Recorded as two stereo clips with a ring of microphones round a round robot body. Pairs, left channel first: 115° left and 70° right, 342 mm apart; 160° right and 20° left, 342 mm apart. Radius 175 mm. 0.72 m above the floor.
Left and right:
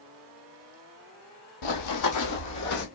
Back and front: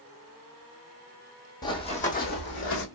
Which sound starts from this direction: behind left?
Running footsteps, at 1.6 s.